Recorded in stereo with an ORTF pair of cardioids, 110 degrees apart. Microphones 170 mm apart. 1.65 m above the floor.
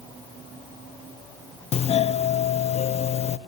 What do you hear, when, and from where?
1.7 s a doorbell: 35° left, 0.8 m